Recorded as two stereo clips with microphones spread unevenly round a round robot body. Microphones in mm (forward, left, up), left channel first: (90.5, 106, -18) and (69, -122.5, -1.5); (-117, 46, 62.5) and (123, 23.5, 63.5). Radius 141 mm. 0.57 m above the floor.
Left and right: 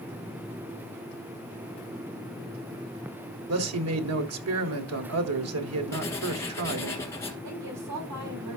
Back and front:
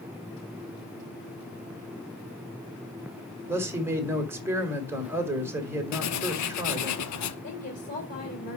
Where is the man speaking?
85° right, 1.9 m.